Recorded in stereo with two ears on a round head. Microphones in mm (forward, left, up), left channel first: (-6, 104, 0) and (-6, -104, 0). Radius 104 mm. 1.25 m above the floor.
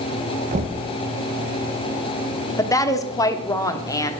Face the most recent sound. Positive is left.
turn(degrees=15)  # may be behind; listen again after turning